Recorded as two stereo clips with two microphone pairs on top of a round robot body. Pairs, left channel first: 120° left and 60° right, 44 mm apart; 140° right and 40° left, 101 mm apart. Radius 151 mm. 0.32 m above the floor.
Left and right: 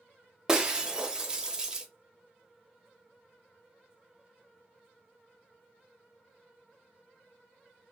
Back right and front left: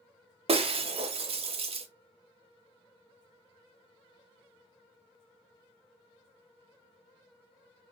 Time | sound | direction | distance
0.5 | breaking glass | 15° left | 0.5 m